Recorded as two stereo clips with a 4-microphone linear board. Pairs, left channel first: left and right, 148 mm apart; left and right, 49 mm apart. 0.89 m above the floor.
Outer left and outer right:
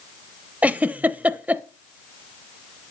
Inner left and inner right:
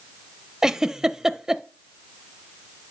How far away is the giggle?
About 0.7 m.